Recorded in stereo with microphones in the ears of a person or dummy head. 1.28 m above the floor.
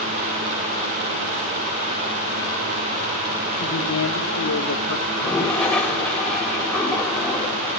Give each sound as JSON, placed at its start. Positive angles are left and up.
{"t": 3.6, "sound": "a woman speaking", "side_deg": 85, "distance_m": 2.5}
{"t": 5.1, "sound": "a toilet flushing", "side_deg": 10, "distance_m": 3.0}